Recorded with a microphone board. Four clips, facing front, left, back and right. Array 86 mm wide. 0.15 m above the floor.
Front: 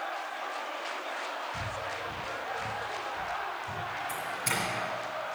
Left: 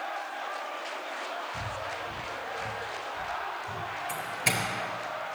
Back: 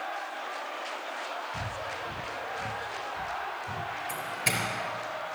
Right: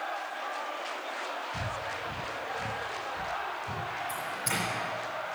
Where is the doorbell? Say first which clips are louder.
Left 2 dB, back 1 dB; 125° left, 4 m.